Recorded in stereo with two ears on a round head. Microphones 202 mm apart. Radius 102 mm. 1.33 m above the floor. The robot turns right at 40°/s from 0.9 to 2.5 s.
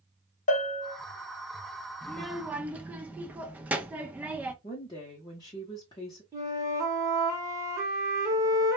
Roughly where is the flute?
Centre.